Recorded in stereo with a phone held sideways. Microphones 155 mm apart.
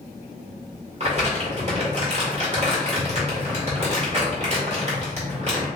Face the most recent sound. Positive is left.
turn(degrees=-45)  # may be behind; listen again after turning